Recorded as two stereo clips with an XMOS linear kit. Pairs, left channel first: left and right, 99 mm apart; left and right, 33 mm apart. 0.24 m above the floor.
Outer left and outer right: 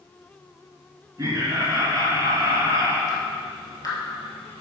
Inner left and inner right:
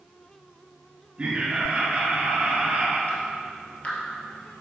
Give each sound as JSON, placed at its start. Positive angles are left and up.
{"t": 1.2, "sound": "laughter", "side_deg": -30, "distance_m": 3.0}
{"t": 3.1, "sound": "dripping", "side_deg": 40, "distance_m": 1.8}